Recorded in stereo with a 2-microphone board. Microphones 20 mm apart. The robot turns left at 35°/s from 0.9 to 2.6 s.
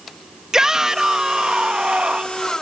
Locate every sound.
0.5 s a shout: 35° right; by 2.4 s 85° right